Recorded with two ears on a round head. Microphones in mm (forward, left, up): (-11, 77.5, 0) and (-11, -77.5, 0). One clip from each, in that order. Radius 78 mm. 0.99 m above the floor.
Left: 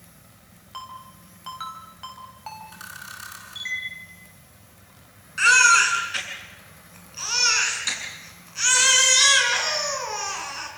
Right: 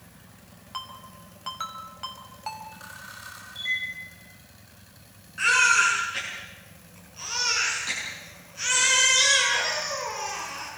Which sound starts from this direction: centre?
A ringtone, at 0.7 s.